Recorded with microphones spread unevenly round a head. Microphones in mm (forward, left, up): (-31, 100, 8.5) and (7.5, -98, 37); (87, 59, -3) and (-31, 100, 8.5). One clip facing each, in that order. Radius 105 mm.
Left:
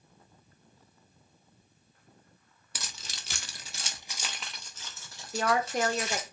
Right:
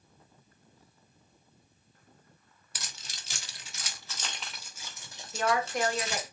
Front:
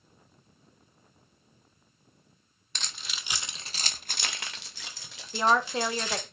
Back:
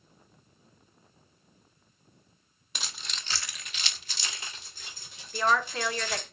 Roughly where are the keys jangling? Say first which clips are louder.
Left 3 dB, even; left.